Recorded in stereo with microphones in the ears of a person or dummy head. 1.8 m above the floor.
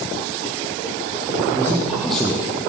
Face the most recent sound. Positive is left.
turn(degrees=30)  # may be behind; listen again after turning